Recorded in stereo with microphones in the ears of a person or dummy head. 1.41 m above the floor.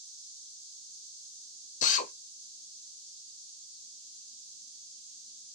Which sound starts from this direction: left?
A drill, at 1.8 s.